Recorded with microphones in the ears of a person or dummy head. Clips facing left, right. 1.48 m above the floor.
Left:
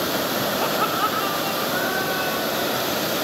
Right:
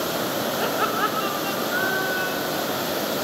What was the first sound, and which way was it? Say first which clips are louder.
Laughter: left 1 dB; 10° right (ahead or behind).